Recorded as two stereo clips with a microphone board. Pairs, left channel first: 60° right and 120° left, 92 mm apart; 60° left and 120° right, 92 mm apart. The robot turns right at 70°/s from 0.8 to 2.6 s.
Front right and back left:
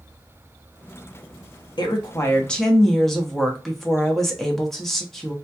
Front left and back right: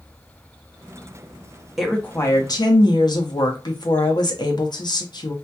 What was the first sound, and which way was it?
A woman speaking, 30° right.